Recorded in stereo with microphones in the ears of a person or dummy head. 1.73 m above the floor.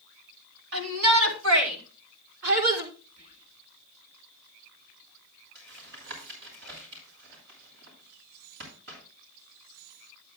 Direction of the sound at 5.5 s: 65° right (ahead or behind).